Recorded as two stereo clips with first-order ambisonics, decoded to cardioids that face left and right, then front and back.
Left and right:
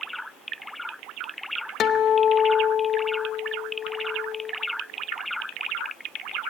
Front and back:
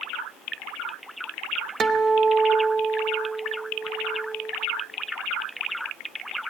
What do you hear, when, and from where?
1.8 s a guitar: 125° left, 0.8 m